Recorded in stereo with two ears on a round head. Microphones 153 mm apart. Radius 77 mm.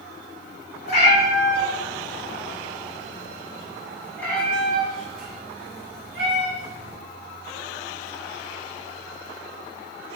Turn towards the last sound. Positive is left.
turn(degrees=-25)  # may be behind; listen again after turning